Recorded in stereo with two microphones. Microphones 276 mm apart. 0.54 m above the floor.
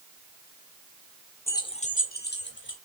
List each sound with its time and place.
1.5 s keys jangling: 10° left (ahead or behind), 0.8 m; by 2.8 s 50° left (ahead or behind), 1.7 m